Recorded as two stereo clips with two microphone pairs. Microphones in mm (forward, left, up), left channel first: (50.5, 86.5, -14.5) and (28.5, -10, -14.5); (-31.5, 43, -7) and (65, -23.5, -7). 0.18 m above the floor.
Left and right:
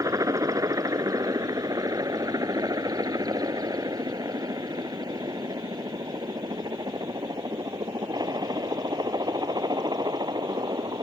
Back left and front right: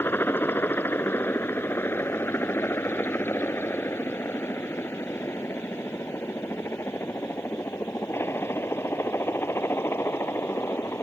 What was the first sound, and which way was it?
A helicopter, 145° right.